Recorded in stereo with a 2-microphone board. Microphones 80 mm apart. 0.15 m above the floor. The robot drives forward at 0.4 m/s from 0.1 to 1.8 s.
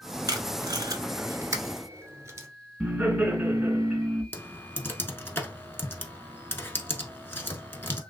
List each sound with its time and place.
0.3 s tape being pulled: 55° right (ahead or behind), 0.6 m; by 2.5 s 35° right (ahead or behind), 0.8 m
2.8 s laughter: 15° right (ahead or behind), 1.5 m
4.3 s typing on a keyboard: 25° left (ahead or behind), 0.6 m